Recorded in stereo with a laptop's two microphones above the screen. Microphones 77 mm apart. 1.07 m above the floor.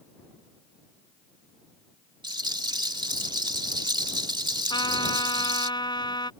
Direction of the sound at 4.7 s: 70° left (ahead or behind).